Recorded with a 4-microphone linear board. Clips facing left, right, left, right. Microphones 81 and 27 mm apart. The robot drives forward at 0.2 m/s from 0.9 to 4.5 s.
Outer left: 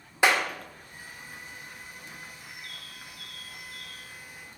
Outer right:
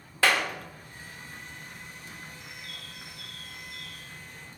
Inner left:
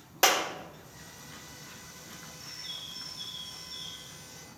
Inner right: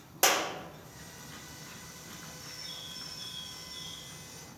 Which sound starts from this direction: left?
A bird, at 2.4 s.